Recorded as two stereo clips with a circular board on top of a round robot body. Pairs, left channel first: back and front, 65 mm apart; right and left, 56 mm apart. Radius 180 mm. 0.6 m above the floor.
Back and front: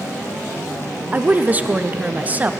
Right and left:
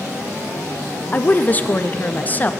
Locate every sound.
1.1 s a woman speaking: 50° right, 0.9 m